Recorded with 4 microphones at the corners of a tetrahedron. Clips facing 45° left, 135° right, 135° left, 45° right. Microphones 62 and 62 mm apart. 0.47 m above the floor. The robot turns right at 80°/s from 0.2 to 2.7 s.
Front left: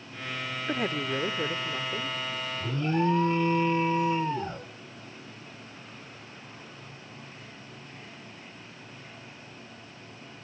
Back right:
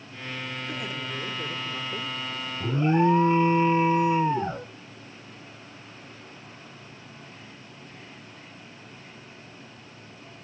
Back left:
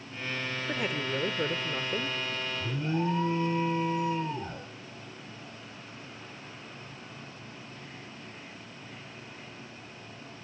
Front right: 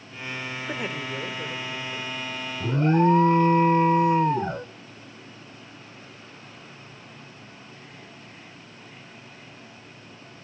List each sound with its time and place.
0.7 s a woman speaking: 30° left, 1.2 m; by 2.2 s 150° left, 1.2 m
2.6 s an alarm: 80° right, 0.8 m; by 4.7 s 70° right, 0.8 m